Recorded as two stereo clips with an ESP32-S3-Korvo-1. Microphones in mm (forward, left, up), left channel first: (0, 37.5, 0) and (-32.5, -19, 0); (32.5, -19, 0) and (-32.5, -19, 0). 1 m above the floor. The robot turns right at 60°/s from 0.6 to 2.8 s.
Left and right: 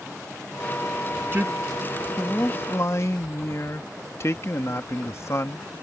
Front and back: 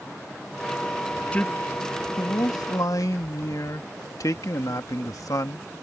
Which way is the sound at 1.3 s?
70° right.